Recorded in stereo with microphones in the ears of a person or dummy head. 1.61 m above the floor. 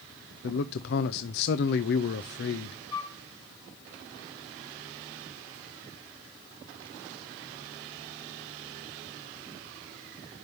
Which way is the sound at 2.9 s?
20° left (ahead or behind).